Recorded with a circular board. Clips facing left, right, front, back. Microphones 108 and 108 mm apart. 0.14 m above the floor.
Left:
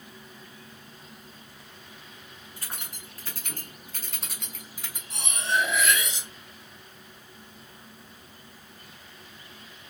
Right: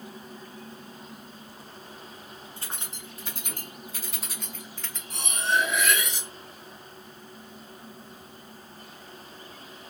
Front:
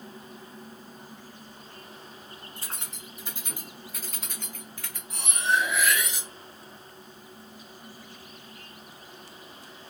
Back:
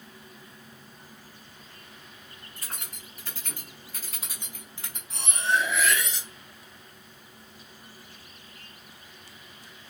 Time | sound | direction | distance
2.6 | keys jangling | 40° right | 1.2 m
5.1 | cutlery clinking | 80° right | 1.3 m